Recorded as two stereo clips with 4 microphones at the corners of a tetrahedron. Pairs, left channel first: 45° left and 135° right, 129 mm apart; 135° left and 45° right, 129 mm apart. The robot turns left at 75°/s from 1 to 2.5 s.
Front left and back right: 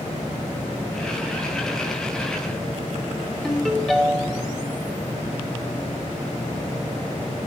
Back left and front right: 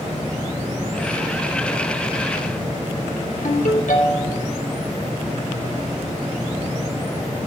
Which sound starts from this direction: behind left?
A ringtone, at 3.4 s.